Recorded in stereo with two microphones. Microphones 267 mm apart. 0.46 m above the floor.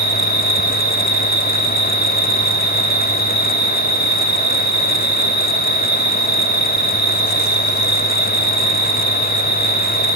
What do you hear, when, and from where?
0.0 s an insect: 70° left (ahead or behind), 2.5 m